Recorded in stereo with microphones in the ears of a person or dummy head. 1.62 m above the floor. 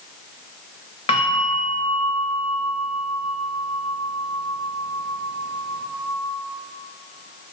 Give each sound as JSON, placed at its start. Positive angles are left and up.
{"t": 1.1, "sound": "a bell", "side_deg": 35, "distance_m": 0.6}